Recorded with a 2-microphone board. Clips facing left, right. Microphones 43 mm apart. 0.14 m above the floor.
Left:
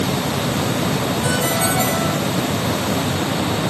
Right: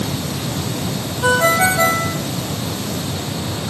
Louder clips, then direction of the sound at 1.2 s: Right 10 dB; 40° right (ahead or behind).